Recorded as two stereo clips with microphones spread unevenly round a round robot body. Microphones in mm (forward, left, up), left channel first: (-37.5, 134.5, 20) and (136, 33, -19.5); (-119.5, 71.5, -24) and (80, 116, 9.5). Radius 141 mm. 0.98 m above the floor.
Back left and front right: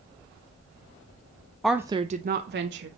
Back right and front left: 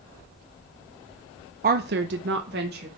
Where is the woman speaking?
50° left, 0.6 m; by 2.9 s 45° right, 1.2 m.